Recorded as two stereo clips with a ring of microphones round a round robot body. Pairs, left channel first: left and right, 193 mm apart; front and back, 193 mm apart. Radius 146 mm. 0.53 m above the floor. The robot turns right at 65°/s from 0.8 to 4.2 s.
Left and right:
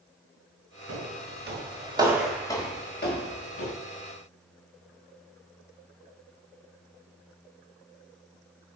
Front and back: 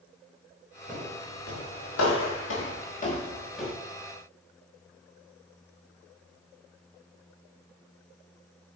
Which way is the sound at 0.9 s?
95° right.